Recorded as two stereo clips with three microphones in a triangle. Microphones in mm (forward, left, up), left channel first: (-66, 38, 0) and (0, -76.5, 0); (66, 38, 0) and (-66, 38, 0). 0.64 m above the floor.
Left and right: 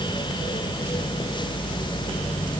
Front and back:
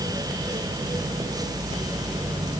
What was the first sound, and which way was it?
Only background noise.